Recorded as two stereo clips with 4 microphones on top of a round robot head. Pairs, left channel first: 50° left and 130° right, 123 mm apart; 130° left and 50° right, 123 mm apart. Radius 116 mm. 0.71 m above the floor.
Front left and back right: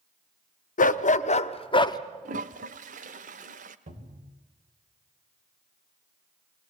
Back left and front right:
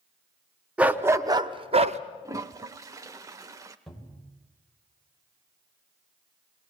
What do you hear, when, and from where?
0.8 s a dog barking: 35° left, 0.8 m; by 2.0 s 15° right, 0.7 m
2.2 s a toilet flushing: 110° right, 0.6 m
3.9 s a cupboard door: 140° right, 3 m